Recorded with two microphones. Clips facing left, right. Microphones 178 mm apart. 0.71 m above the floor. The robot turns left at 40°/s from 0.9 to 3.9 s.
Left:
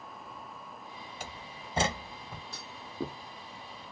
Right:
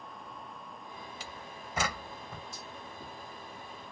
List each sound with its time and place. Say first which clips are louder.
1.2 s a door slam: left 1 dB; 50° left (ahead or behind); by 2.4 s 5° left (ahead or behind)
2.5 s a clunk: left 4 dB; 70° left (ahead or behind); by 3.2 s 85° left